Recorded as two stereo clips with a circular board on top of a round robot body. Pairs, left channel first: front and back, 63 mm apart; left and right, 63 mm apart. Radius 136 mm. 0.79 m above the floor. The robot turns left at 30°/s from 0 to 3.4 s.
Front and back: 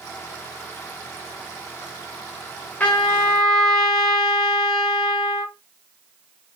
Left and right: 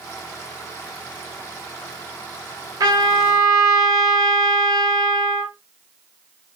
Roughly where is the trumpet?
Ahead right.